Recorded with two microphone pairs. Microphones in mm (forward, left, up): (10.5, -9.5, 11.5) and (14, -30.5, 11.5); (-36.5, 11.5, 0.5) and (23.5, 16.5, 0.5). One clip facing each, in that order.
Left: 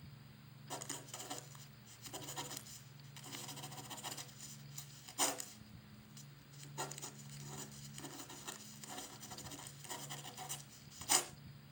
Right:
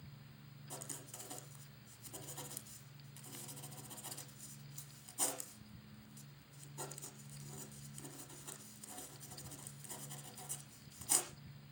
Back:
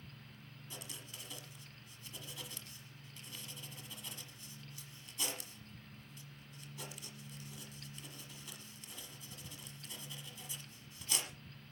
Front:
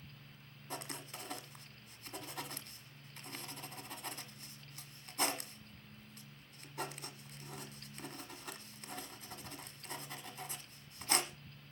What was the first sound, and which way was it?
Writing, 40° left.